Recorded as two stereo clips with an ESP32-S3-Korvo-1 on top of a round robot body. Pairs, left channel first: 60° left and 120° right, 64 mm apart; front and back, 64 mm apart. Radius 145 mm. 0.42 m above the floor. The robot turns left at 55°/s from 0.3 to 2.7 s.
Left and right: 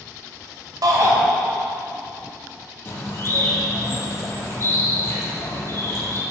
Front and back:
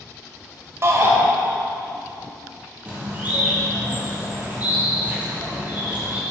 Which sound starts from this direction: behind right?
A shout, at 0.8 s.